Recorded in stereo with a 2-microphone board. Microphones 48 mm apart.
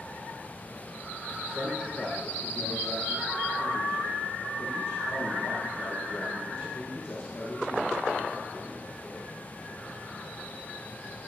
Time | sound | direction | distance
1.4 | a man speaking | 50° left (ahead or behind) | 6.5 m